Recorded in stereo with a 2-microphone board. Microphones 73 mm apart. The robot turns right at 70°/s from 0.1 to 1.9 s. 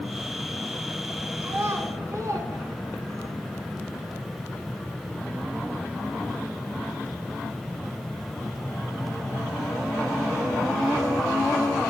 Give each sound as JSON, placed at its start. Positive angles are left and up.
{"t": 1.4, "sound": "a child speaking", "side_deg": -25, "distance_m": 1.1}